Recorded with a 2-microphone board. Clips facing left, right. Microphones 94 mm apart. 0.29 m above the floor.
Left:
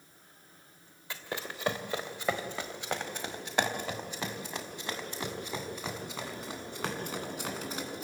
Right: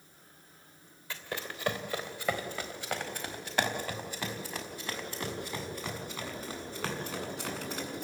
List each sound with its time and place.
1.1 s running footsteps: 20° left (ahead or behind), 2.5 m; by 8.0 s 15° left (ahead or behind), 7.5 m